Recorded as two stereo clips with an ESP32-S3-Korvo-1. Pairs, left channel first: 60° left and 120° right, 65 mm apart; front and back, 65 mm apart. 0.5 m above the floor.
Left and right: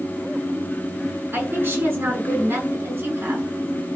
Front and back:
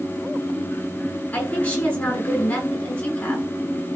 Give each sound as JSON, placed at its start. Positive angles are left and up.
{"t": 1.3, "sound": "a woman speaking", "azimuth_deg": -60, "distance_m": 7.0}